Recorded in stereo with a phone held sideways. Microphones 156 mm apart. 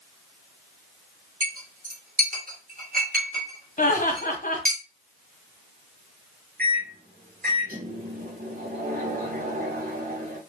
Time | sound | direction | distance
1.4 | a clink | 65° right (ahead or behind) | 1.0 m
3.8 | laughter | 60° left (ahead or behind) | 0.8 m
6.6 | a microwave | 80° right | 0.9 m